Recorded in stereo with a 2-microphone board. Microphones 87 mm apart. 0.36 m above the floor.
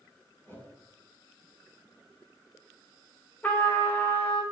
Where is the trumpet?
20° left (ahead or behind), 1.9 m.